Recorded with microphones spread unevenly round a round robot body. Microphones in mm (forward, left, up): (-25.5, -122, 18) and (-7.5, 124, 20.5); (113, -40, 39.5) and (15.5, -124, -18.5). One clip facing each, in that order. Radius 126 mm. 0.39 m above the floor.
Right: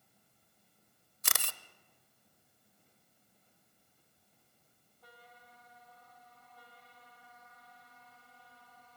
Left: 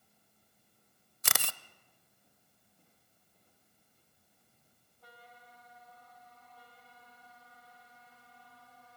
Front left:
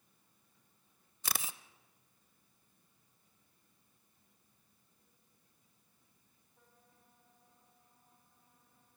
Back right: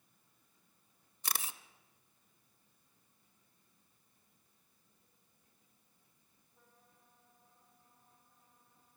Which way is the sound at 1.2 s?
55° left.